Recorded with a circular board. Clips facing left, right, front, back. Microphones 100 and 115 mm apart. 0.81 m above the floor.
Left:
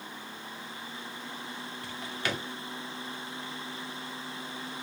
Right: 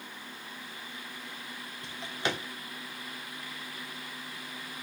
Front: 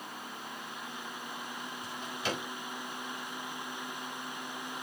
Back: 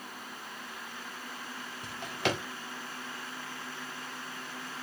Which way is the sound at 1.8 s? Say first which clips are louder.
Right 2 dB, back 5 dB; 155° right.